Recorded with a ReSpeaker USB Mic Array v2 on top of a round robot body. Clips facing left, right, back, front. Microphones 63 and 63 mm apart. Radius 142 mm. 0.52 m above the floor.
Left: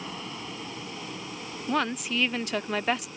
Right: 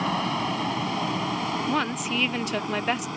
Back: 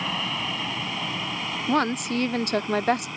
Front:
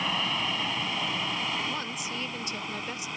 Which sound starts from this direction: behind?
A woman speaking, at 1.7 s.